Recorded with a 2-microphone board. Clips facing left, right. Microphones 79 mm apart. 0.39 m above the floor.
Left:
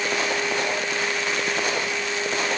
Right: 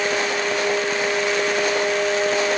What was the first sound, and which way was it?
Only background noise.